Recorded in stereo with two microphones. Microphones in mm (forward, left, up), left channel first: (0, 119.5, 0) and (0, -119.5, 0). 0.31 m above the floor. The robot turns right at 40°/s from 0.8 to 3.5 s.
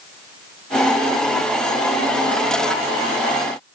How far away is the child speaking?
I don't hear a child speaking.